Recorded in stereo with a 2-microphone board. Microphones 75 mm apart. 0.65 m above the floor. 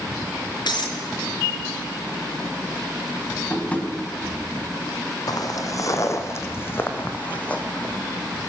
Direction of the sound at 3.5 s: 20° left (ahead or behind).